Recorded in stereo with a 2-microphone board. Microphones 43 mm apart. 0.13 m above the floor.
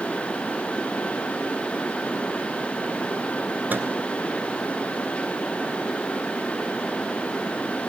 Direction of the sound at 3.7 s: 45° right (ahead or behind).